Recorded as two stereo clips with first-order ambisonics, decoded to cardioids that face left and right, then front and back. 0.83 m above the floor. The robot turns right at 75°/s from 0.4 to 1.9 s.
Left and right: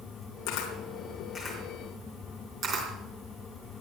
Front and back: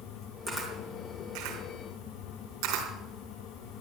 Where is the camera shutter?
100° left, 3.5 m; by 2.9 s 150° right, 3.5 m.